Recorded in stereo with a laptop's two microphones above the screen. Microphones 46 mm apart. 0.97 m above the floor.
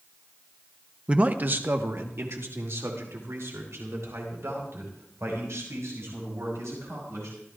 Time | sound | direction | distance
1.1 | a man speaking | 20° right (ahead or behind) | 0.7 m